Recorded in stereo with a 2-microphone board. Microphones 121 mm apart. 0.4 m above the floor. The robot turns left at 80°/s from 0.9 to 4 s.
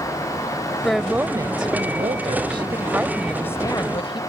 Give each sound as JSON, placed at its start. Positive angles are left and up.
{"t": 0.8, "sound": "a woman speaking", "azimuth_deg": 5}